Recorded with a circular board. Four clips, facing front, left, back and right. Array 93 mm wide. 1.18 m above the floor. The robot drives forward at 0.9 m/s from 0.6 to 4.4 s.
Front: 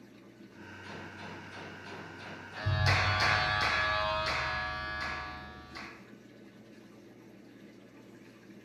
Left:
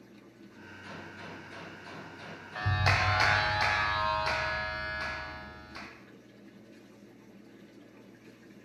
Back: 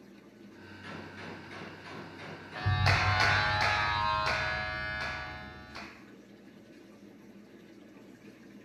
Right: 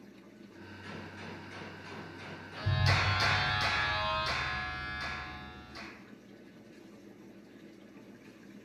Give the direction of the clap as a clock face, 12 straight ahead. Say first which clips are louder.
Left 3 dB, back 1 dB; 8 o'clock.